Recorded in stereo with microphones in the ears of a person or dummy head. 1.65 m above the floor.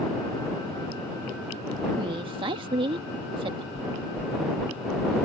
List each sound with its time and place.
2.0 s a woman speaking: 30° right (ahead or behind)
3.8 s knocking: 20° right (ahead or behind)